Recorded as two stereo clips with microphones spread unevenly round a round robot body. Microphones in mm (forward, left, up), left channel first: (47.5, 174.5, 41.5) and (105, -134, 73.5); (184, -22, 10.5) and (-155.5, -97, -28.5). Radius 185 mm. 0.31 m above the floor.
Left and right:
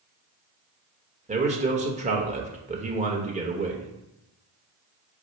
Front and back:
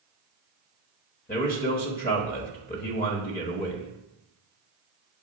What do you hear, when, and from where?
1.3 s a man speaking: 30° right, 1.3 m